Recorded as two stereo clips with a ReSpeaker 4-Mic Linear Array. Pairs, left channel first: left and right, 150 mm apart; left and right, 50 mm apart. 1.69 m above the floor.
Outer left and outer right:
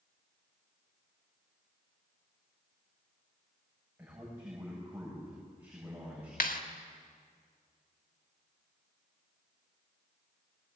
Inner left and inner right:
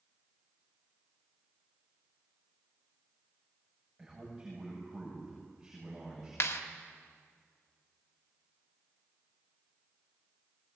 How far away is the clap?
About 1.8 m.